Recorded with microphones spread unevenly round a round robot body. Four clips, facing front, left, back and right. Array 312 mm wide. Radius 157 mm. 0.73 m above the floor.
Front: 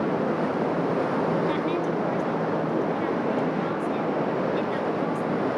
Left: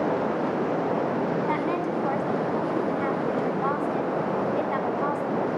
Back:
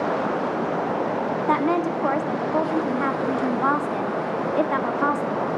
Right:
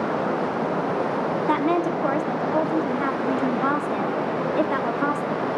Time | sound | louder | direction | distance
1.5 | a woman speaking | right 4 dB, back 4 dB | 135° right | 1.7 m